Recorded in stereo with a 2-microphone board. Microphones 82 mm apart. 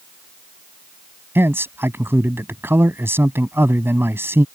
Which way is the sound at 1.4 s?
30° right (ahead or behind).